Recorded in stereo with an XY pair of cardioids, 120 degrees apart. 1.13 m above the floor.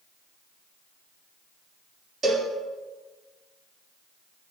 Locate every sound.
2.2 s a cowbell: 40° right, 3 m